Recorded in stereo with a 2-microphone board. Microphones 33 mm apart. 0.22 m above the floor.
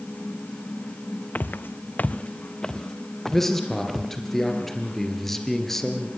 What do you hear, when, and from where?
1.4 s footsteps: 60° left (ahead or behind), 0.8 m; by 4.1 s 5° left (ahead or behind), 3 m
3.3 s a man speaking: 10° left (ahead or behind), 3.5 m